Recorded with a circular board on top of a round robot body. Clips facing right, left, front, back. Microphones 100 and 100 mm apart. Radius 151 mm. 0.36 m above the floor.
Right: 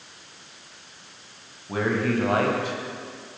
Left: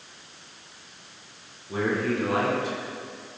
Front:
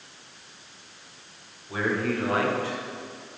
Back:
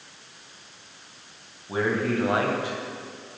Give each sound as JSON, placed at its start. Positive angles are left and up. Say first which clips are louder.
{"t": 1.7, "sound": "a man speaking", "louder": "right 2 dB, back 2 dB", "azimuth_deg": -120, "distance_m": 3.0}